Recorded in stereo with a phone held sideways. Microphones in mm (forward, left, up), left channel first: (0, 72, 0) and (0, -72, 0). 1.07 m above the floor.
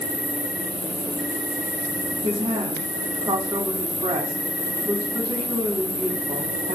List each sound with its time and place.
0.0 s an insect: 15° right (ahead or behind), 1.0 m
2.2 s a woman speaking: 35° right (ahead or behind), 1.4 m